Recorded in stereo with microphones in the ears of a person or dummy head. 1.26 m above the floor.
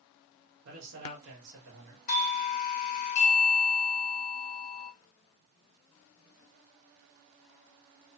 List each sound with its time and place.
0.7 s a man speaking: 70° right (ahead or behind), 1.2 m
2.1 s a doorbell: 40° left (ahead or behind), 0.5 m